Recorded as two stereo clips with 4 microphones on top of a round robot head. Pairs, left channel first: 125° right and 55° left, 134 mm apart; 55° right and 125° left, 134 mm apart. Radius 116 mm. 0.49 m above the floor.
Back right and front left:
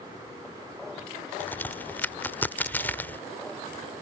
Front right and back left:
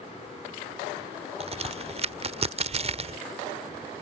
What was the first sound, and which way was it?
A crack, 160° left.